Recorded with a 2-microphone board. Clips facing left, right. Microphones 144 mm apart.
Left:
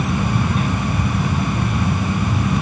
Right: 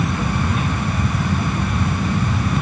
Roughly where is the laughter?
No laughter in this recording.